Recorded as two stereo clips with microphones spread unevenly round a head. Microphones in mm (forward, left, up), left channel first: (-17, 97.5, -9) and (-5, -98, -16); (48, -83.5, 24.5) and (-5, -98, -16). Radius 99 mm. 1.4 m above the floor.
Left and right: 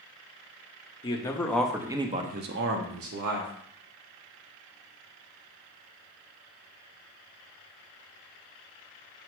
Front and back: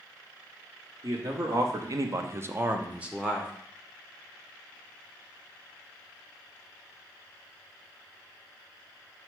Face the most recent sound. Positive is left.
turn(degrees=-85)